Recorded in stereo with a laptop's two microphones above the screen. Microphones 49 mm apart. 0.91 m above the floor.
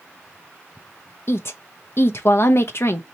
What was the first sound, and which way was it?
A woman speaking, 55° left (ahead or behind).